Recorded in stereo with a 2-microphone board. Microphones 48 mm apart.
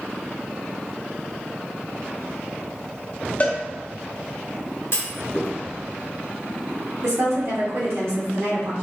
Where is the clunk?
55° left (ahead or behind), 0.9 m.